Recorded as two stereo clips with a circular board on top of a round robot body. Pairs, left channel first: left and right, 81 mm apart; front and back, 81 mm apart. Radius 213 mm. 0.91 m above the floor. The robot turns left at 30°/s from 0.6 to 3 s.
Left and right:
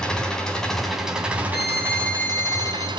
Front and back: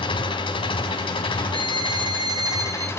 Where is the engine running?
10° left, 3 m; by 3.0 s 60° right, 3 m.